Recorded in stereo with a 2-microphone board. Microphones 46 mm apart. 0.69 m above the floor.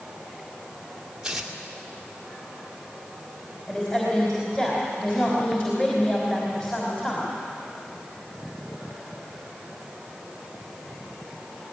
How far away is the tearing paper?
About 1.9 m.